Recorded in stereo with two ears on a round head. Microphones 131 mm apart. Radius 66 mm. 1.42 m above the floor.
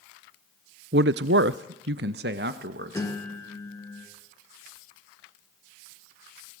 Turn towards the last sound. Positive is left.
turn(degrees=20)  # may be behind; listen again after turning